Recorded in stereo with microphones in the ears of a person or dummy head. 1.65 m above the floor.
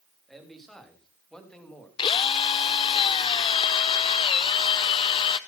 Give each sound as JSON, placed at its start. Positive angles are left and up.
{"t": 0.3, "sound": "a man speaking", "side_deg": 0, "distance_m": 4.0}
{"t": 2.0, "sound": "a drill", "side_deg": 30, "distance_m": 1.0}